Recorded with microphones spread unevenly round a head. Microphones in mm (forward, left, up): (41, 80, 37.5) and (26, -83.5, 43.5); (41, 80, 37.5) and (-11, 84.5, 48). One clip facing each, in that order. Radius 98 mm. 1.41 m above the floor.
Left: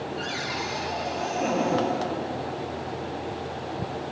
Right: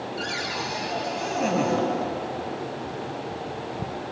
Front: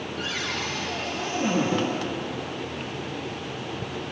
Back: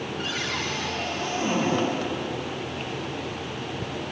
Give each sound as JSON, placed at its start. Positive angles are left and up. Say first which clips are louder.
{"t": 0.2, "sound": "a cupboard door", "louder": "even, even", "azimuth_deg": -55, "distance_m": 7.5}